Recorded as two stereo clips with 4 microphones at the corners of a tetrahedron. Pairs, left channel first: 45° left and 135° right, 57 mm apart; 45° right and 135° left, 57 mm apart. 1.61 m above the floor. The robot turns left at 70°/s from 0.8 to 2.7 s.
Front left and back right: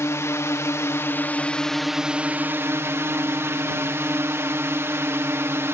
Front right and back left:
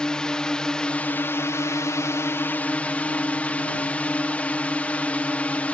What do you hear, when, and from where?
0.0 s a drone: 25° left; by 5.7 s 105° right